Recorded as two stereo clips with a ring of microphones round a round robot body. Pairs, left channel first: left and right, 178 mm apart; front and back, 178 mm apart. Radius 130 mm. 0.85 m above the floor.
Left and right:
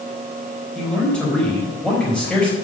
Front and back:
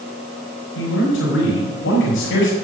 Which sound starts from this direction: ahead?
A man speaking, at 0.8 s.